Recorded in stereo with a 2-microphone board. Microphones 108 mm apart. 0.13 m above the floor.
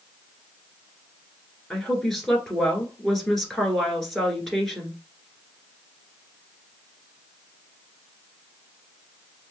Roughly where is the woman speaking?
Centre.